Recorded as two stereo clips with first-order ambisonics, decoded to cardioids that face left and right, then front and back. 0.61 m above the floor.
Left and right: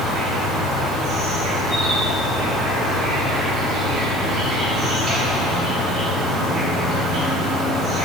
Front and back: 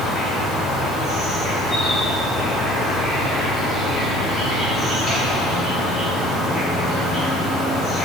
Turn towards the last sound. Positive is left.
turn(degrees=-65)